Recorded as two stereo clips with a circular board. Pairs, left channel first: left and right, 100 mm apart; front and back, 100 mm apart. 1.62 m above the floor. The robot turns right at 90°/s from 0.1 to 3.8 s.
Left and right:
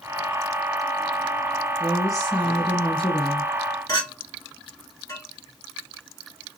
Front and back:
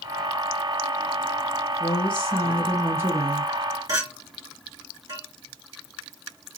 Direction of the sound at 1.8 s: 5° left.